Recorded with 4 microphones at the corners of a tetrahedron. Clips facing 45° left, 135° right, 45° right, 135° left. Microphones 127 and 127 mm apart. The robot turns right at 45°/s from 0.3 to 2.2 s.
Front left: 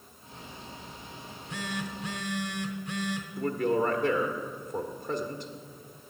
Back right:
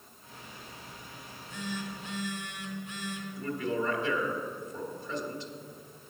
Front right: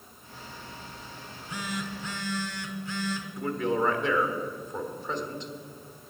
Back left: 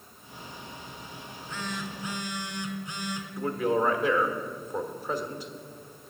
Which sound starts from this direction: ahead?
A phone buzzing, at 1.2 s.